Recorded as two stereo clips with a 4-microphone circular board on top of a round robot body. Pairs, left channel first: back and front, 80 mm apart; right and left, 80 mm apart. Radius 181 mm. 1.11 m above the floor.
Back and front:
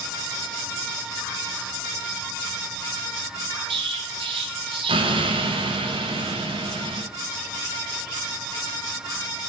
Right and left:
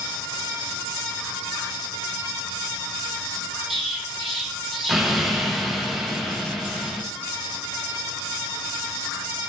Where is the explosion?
Straight ahead, 0.8 m.